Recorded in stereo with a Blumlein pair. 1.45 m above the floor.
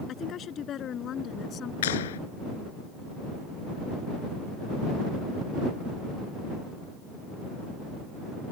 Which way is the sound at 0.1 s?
30° left.